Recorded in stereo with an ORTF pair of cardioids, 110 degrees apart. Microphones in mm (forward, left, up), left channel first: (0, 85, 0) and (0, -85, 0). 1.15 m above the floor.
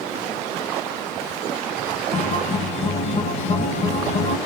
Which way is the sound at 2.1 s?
45° left.